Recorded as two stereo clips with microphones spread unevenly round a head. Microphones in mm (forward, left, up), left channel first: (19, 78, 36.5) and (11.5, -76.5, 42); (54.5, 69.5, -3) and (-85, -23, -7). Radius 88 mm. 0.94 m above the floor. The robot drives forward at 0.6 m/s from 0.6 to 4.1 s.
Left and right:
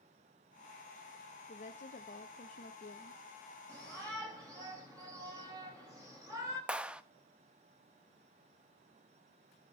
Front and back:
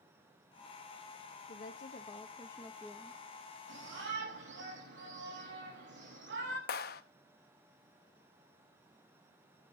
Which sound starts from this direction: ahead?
A clap, at 6.7 s.